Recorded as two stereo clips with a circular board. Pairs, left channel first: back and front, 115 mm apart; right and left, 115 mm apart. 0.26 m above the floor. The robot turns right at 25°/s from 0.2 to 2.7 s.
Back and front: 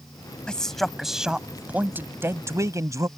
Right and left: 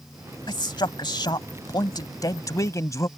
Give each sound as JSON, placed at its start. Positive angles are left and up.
{"t": 0.5, "sound": "a man speaking", "azimuth_deg": -100}